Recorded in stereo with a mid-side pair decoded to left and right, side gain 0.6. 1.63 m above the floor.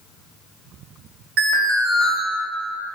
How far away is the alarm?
About 1.1 m.